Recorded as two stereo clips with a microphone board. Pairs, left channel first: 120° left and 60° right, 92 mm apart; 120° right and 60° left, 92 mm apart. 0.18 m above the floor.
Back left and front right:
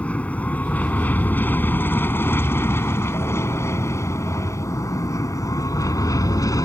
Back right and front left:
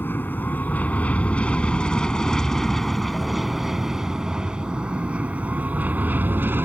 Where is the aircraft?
175° right; by 6.7 s 115° left.